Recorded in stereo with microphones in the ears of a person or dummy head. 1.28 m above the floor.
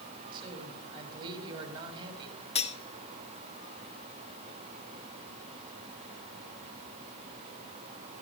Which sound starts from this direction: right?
A man speaking, at 0.3 s.